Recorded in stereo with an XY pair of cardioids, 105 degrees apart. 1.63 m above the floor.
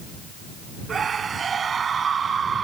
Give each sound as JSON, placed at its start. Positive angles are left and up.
{"t": 0.9, "sound": "a scream", "azimuth_deg": -40}